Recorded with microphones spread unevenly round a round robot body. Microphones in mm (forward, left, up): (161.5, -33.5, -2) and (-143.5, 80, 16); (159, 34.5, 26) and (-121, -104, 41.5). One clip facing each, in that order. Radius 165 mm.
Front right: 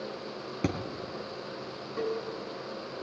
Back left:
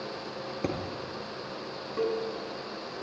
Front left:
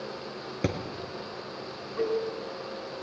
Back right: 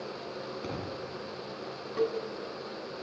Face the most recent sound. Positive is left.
turn(degrees=-110)